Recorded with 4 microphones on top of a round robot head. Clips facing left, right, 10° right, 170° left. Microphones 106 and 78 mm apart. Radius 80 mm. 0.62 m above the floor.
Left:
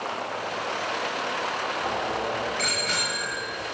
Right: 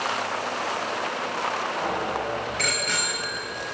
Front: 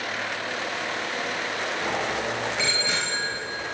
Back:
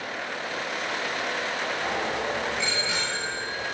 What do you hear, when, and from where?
1.8 s a bicycle bell: 10° right, 7.5 m; by 3.4 s 10° left, 7.5 m